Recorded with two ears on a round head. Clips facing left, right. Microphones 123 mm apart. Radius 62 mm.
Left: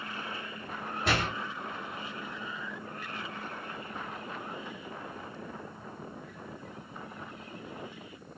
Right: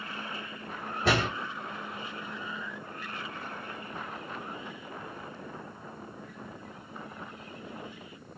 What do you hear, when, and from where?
1.1 s a door slam: 75° right (ahead or behind), 2.5 m